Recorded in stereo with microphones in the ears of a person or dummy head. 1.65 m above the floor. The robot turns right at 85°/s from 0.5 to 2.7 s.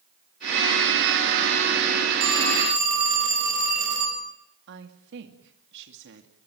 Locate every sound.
2.2 s a phone ringing: 90° right, 10 m; by 4.2 s 45° right, 10 m
4.7 s a woman speaking: 65° right (ahead or behind), 2.5 m